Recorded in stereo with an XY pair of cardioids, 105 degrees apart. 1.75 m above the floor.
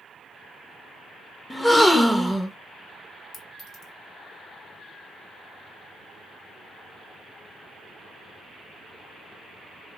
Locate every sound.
1.5 s a gasp: 10° left, 0.6 m
3.3 s a clink: 70° left, 2 m